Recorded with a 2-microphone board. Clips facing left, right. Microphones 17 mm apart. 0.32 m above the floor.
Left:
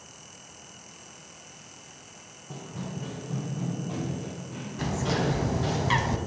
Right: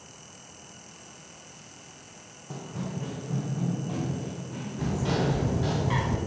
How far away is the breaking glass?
I don't hear breaking glass.